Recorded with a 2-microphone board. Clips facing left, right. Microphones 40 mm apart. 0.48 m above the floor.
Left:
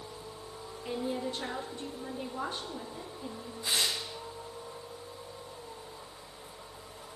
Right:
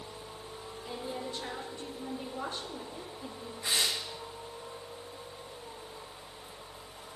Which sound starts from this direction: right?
Tearing paper, at 3.6 s.